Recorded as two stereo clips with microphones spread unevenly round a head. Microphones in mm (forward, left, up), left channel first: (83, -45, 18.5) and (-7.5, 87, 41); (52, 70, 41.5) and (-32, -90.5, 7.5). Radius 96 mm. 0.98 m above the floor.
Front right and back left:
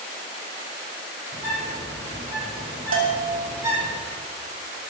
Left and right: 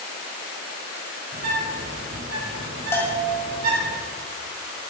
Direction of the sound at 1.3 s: 160° right.